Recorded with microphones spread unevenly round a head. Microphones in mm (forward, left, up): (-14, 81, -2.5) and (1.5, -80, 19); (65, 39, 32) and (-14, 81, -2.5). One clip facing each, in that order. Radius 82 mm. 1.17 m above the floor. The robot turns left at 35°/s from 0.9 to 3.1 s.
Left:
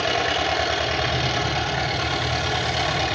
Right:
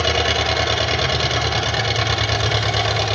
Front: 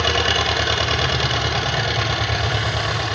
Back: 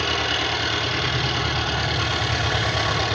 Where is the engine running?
45° right, 3.5 m; by 3.1 s 120° right, 3.5 m.